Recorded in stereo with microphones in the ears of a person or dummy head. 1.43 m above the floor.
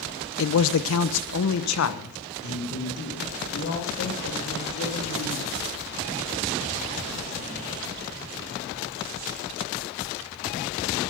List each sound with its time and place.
0.4 s a man speaking: 65° left (ahead or behind), 0.6 m; by 5.6 s 55° left (ahead or behind), 3.5 m